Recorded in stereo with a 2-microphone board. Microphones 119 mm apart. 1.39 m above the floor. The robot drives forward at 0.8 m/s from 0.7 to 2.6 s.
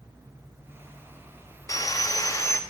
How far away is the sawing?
About 0.9 m.